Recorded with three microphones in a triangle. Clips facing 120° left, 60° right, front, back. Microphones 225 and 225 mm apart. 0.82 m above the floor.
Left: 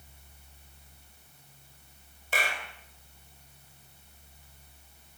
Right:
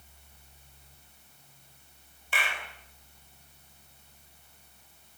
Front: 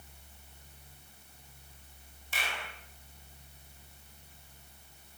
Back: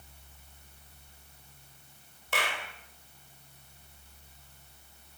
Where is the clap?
170° left, 3.5 m.